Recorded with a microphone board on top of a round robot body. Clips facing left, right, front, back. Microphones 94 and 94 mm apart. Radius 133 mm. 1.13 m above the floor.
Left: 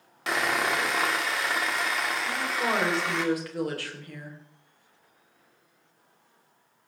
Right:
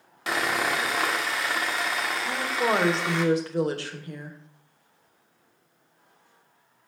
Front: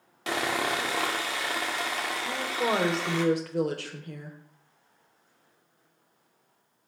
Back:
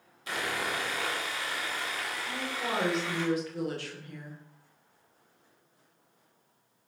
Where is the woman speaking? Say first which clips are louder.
Right 6 dB, front 7 dB; 25° right, 4 m.